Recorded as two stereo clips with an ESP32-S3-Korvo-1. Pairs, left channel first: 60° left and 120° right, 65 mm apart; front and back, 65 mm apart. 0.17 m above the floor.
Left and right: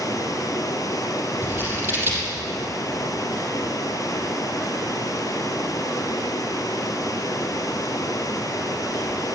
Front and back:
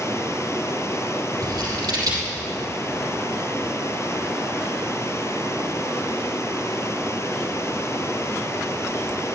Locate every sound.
0.0 s running water: 40° left, 1.4 m
1.4 s scissors: 175° right, 4 m